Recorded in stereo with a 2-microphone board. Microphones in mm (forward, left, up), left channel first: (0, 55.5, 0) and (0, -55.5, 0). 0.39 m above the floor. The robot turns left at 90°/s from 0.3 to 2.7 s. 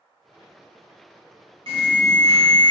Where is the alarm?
90° right, 1.7 m; by 2.7 s 175° left, 1.7 m.